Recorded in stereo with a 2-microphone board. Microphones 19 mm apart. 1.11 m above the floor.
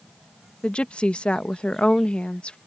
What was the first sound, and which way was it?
A woman speaking, 75° left (ahead or behind).